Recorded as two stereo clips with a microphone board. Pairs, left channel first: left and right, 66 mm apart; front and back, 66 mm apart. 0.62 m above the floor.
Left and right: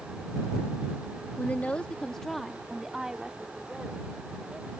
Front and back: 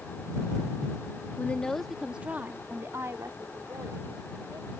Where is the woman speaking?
45° left; by 4.7 s 160° right.